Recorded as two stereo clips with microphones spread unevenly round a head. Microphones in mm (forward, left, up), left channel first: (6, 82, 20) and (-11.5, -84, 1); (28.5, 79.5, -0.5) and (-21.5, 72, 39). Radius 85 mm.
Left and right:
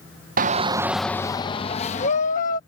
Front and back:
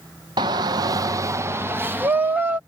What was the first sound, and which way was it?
A shout, 135° right.